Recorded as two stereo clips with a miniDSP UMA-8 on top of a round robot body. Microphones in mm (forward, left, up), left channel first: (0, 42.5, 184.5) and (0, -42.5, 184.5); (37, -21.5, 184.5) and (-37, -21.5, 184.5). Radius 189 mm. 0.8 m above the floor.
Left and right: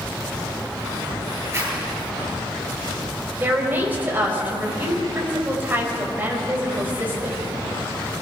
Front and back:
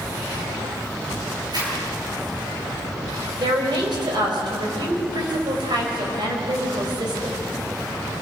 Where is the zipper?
150° right, 8.5 m.